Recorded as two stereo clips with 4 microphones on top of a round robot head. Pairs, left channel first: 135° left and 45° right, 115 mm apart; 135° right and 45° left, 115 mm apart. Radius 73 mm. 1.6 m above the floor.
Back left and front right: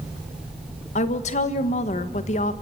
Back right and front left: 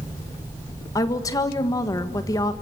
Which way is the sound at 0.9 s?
165° left.